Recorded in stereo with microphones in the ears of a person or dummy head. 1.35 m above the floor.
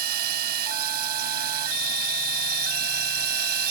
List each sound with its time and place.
0.0 s a drone: 55° right (ahead or behind)